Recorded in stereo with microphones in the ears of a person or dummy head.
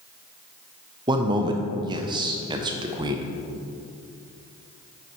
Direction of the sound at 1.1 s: 20° right (ahead or behind).